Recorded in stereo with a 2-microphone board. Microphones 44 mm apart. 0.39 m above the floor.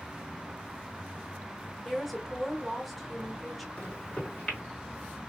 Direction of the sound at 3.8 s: 30° left (ahead or behind).